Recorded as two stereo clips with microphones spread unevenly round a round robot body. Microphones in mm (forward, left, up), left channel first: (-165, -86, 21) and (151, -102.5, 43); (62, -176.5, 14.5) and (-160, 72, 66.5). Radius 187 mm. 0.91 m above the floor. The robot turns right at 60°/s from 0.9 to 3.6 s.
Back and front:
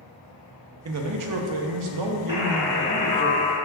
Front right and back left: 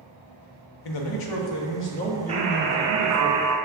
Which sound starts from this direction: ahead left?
A buzzer, at 2.3 s.